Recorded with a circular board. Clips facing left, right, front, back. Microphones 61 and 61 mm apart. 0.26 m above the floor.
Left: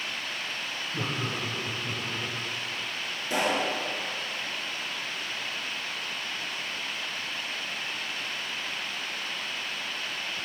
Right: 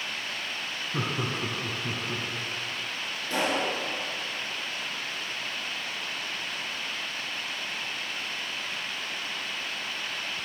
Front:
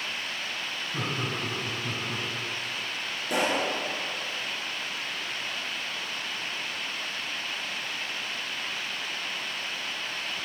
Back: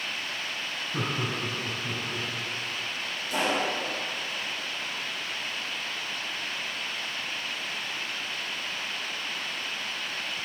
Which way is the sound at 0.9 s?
105° right.